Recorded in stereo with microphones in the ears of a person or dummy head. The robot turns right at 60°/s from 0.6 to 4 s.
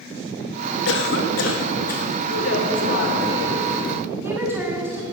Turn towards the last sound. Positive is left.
turn(degrees=-165)